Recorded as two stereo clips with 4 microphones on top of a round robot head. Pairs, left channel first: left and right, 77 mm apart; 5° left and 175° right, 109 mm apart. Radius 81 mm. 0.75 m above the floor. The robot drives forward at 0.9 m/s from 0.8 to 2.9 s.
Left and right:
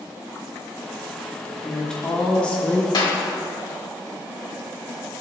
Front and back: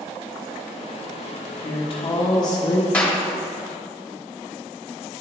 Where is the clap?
80° left, 1.3 m.